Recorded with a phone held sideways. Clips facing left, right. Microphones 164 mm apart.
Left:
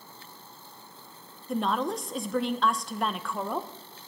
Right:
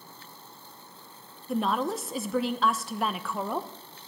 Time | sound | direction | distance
1.5 | a woman speaking | centre (ahead or behind) | 0.7 m